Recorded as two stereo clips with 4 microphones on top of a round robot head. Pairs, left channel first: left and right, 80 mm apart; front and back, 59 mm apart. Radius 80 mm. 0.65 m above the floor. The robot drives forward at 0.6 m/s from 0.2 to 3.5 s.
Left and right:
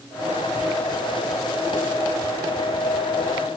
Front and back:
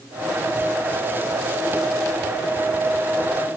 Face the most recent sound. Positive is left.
No sound to turn to.